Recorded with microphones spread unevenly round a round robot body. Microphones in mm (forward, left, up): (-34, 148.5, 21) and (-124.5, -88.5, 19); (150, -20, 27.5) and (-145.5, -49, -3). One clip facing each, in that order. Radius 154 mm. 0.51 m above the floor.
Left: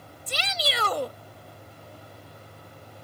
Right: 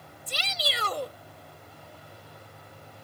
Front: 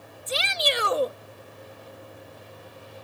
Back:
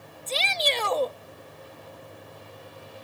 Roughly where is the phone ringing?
No phone ringing in this recording.